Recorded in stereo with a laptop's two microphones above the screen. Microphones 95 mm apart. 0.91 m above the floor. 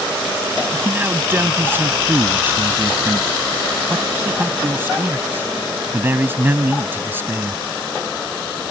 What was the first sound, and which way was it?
A man speaking, 25° right (ahead or behind).